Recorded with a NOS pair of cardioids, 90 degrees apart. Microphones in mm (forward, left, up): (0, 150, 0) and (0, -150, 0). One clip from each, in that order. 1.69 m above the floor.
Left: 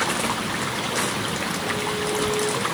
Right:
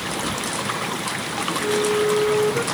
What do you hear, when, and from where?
1.6 s a flute: 60° right, 5.5 m